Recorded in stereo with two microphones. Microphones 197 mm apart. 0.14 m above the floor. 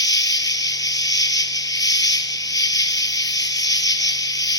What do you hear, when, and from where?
0.0 s an insect: 20° left (ahead or behind), 1.0 m